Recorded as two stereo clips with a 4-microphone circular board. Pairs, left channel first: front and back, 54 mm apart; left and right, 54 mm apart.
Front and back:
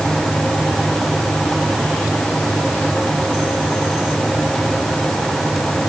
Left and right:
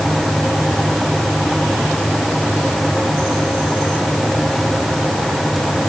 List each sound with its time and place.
Only background noise.